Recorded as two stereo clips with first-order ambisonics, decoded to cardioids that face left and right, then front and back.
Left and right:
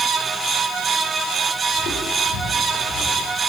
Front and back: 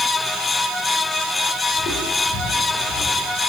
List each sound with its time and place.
1.7 s footsteps: 45° left, 9.5 m; by 3.3 s 55° left, 10 m